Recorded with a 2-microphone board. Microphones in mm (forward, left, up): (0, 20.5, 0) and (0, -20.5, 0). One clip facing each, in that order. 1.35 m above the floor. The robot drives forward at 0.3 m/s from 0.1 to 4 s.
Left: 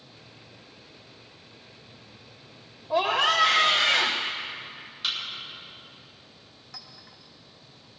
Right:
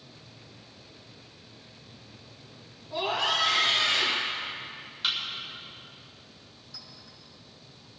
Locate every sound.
2.9 s a scream: 75° left (ahead or behind), 1.1 m; by 4.3 s 85° left, 1.1 m
5.0 s a thud: 5° right (ahead or behind), 7 m
6.7 s a clink: 65° left (ahead or behind), 2.5 m